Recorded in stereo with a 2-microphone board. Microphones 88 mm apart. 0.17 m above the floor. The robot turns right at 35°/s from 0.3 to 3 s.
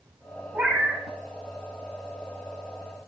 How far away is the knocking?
No knocking in this recording.